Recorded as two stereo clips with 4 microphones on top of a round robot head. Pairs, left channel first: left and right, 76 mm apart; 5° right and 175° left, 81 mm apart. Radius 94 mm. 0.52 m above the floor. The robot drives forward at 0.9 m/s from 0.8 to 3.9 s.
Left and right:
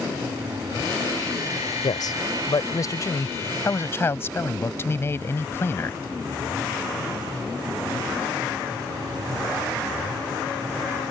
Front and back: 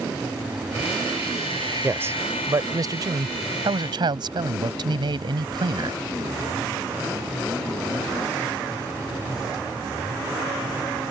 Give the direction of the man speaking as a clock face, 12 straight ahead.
8 o'clock.